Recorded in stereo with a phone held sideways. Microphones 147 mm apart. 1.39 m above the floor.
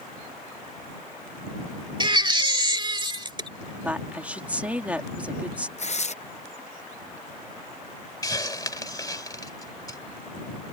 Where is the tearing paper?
50° left (ahead or behind).